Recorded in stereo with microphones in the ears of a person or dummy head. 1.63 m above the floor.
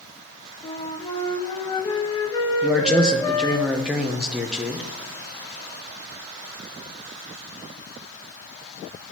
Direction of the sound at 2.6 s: 5° right (ahead or behind).